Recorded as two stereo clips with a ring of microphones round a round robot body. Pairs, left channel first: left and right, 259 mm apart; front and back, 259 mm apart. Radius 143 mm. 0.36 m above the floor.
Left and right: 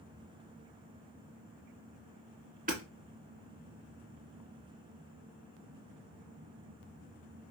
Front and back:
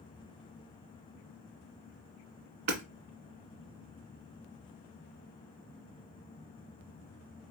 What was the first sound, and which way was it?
Hammering, 155° right.